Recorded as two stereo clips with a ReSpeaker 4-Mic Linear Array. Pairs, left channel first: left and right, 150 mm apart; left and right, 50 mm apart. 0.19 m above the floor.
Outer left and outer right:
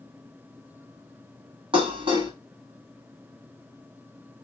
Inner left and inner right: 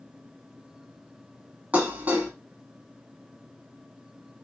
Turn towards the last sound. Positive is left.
turn(degrees=-35)  # may be behind; listen again after turning